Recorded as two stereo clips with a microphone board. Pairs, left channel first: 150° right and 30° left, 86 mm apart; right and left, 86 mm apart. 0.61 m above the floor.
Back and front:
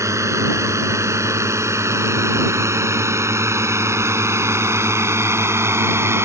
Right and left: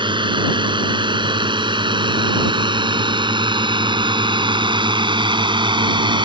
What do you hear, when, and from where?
0.0 s a drone: 80° left; by 6.2 s 85° left